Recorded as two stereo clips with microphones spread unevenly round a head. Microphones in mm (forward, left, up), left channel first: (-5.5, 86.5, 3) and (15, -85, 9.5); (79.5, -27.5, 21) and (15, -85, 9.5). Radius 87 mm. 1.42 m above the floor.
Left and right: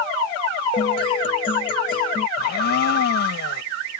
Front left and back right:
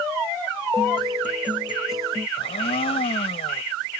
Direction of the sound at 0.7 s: 160° left.